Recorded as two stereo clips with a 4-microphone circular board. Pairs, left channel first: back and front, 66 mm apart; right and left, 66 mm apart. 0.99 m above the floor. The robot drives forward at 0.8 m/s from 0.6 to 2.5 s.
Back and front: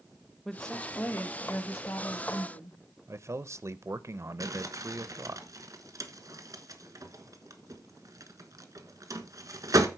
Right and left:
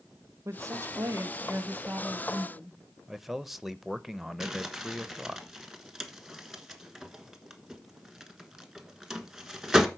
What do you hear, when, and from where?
0.5 s a woman speaking: 100° left, 1.0 m; by 2.8 s 155° left, 1.9 m
3.1 s a man speaking: 5° left, 0.5 m
4.4 s crumpling: 5° left, 1.2 m